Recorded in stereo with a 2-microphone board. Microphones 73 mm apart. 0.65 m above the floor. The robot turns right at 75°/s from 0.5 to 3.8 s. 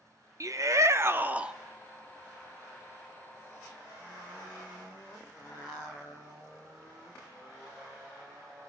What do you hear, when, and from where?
0.4 s a shout: 90° right, 0.9 m; by 1.5 s 15° right, 0.9 m